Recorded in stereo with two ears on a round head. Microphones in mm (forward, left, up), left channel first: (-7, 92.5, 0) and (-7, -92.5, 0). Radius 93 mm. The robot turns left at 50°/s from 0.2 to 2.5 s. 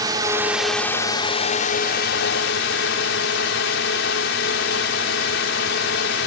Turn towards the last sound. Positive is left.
turn(degrees=90)